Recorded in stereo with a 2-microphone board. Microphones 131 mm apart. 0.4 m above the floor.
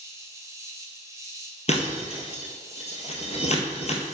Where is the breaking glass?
55° left (ahead or behind), 1.2 m.